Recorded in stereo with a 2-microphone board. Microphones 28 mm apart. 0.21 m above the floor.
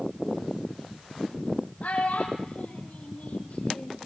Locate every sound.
1.8 s a child speaking: 70° left (ahead or behind), 4 m; by 4.0 s 60° left (ahead or behind), 3 m